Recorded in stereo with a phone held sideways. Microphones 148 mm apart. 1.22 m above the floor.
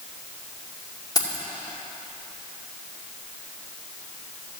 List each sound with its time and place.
1.1 s keys jangling: 25° left (ahead or behind), 2 m